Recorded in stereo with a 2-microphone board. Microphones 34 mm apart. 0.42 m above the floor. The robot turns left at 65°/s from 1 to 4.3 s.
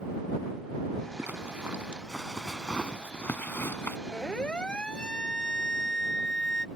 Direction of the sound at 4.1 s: 40° left (ahead or behind).